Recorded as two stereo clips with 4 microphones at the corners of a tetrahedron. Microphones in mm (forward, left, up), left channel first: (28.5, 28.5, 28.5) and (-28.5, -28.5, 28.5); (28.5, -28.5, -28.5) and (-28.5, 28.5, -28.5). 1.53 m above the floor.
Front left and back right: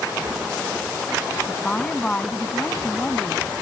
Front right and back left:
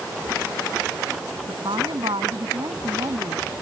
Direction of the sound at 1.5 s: 120° left.